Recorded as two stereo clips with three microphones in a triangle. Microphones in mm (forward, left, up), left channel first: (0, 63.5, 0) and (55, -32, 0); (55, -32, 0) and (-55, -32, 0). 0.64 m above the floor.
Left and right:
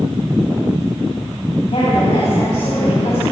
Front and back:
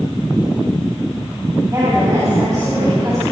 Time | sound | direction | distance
1.7 | a woman speaking | 125° left | 5 m